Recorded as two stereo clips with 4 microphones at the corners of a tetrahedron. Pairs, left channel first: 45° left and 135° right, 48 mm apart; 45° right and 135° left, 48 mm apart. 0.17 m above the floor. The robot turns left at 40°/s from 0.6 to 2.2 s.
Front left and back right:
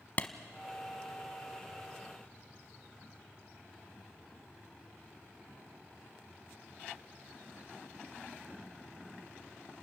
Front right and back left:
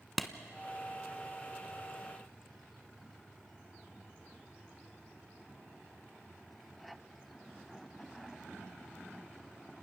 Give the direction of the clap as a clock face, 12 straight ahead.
10 o'clock.